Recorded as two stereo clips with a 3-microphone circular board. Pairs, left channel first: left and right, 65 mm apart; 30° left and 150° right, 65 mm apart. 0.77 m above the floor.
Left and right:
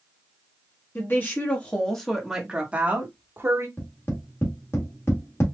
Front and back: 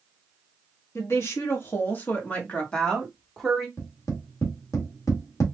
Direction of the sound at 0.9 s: 55° left.